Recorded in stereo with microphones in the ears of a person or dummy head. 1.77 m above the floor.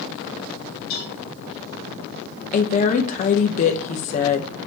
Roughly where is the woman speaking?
Left.